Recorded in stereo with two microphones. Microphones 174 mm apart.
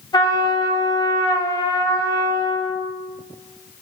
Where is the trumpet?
25° left (ahead or behind), 1.7 m.